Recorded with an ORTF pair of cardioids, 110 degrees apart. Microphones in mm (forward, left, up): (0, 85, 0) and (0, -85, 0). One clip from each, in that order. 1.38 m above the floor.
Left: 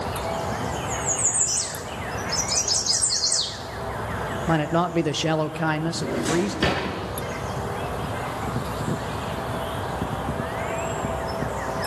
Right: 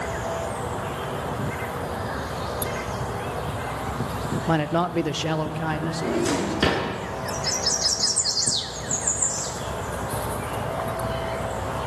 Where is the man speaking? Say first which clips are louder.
Even; 5° right, 1.0 m; by 7.0 s 60° left, 1.8 m.